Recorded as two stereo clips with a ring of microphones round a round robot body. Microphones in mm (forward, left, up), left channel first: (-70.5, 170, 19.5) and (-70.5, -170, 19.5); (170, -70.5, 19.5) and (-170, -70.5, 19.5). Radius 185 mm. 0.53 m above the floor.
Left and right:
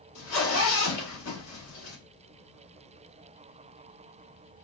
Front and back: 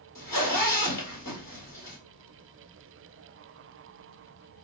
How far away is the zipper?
About 1.3 m.